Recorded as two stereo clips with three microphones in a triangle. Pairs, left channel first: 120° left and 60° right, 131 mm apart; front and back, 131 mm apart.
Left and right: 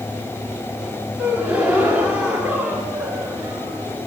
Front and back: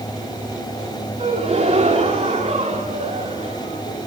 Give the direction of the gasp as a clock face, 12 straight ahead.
5 o'clock.